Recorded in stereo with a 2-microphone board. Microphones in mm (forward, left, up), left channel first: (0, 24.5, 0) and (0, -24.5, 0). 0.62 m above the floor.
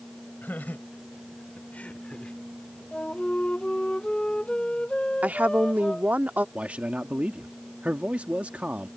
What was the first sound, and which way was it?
Laughter, 40° left (ahead or behind).